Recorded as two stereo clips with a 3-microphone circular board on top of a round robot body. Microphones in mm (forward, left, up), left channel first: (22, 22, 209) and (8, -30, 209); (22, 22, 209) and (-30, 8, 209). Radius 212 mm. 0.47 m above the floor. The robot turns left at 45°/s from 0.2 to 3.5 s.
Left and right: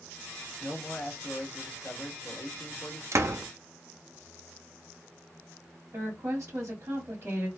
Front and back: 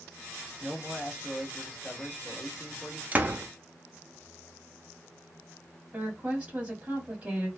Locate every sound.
0.6 s a man speaking: 150° left, 1.4 m; by 3.0 s 40° left, 1.4 m
3.1 s a door slam: 110° right, 0.7 m; by 3.5 s 125° right, 0.7 m
5.9 s a woman speaking: 105° right, 2 m